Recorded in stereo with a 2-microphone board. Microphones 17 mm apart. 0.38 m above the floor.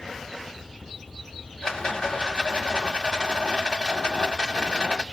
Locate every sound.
1.6 s a rattle: 50° left (ahead or behind), 1.0 m